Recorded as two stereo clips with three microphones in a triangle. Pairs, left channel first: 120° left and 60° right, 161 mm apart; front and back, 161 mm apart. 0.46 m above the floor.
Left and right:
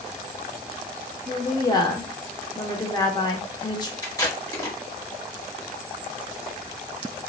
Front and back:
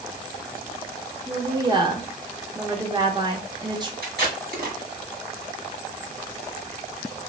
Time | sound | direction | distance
1.3 | a woman speaking | 155° left | 0.8 m
4.0 | tape being pulled | 170° right | 1.7 m